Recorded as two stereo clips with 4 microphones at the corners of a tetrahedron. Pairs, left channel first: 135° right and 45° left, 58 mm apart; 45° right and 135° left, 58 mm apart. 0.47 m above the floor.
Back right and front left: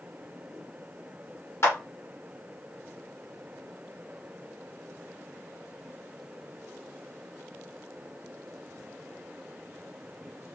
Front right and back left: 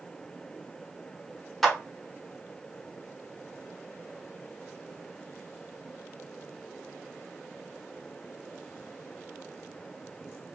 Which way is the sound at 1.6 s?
130° right.